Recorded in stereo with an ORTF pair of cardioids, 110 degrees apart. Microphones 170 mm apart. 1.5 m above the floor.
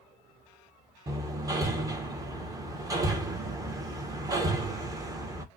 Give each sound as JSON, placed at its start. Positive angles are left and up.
{"t": 1.1, "sound": "hammering", "azimuth_deg": -20, "distance_m": 1.2}